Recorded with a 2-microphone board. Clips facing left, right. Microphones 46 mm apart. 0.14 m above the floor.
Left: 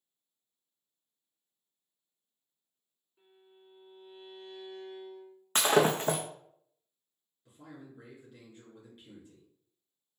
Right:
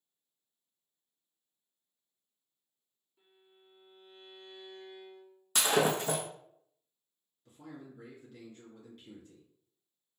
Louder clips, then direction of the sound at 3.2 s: Left 4 dB; 15° left (ahead or behind).